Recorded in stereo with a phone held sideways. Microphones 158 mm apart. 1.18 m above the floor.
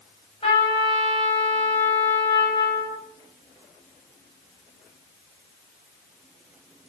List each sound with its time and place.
0.4 s a trumpet: 35° left (ahead or behind), 7 m